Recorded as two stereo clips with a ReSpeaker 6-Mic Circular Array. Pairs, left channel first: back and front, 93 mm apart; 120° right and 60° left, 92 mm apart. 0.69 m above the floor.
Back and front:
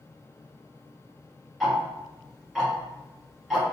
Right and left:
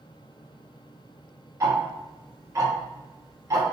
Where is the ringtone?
I don't hear a ringtone.